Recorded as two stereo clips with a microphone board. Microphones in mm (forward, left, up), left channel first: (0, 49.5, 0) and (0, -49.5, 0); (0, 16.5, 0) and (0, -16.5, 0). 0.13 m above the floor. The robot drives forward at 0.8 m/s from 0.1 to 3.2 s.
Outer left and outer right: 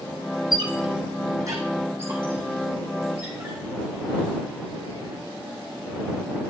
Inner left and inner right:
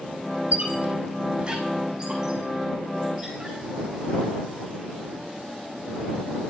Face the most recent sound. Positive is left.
turn(degrees=-15)  # may be behind; listen again after turning